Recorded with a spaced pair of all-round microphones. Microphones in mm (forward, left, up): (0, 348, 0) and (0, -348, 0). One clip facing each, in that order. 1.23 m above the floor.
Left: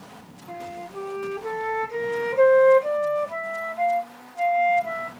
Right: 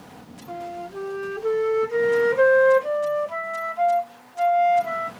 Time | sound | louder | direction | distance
0.5 | a flute | right 3 dB | 45° right (ahead or behind) | 1.2 m